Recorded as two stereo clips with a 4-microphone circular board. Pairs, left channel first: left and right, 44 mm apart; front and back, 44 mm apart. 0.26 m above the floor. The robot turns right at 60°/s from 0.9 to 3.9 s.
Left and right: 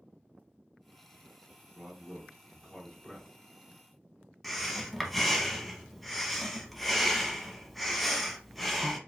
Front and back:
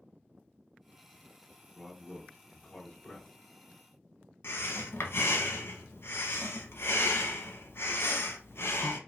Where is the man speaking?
55° right, 1.6 m; by 3.3 s 40° left, 1.6 m.